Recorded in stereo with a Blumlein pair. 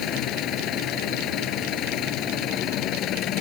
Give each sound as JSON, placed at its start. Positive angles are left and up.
{"t": 0.0, "sound": "an engine running", "azimuth_deg": 35}